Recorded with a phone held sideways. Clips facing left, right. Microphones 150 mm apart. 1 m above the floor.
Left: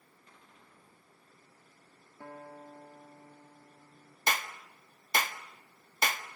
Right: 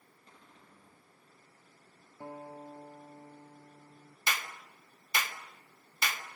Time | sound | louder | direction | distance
0.3 | a cupboard door | right 2 dB | 35° right (ahead or behind) | 9 m
2.2 | a guitar | right 3 dB | 20° right (ahead or behind) | 0.9 m
4.3 | a clap | left 4 dB | 45° left (ahead or behind) | 1.3 m